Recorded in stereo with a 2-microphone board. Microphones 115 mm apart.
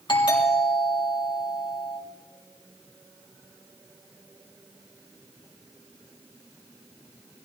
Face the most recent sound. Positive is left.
turn(degrees=45)  # may be behind; listen again after turning